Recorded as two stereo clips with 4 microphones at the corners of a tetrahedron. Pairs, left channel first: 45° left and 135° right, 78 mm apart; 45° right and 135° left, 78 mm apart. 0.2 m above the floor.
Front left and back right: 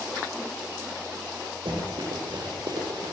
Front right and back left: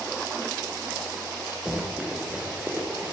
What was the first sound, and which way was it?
Running footsteps, 145° right.